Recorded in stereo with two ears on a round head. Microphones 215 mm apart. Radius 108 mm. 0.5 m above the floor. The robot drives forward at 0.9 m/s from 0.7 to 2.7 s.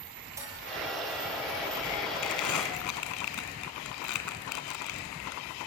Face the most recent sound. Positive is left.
turn(degrees=75)  # may be behind; listen again after turning